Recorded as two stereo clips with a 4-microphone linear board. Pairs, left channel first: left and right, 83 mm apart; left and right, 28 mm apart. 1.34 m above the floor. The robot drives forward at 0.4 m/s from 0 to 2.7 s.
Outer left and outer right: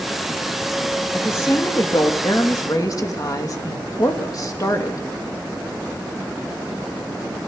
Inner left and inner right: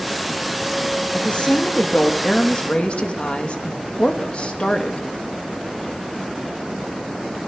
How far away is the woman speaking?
About 3 m.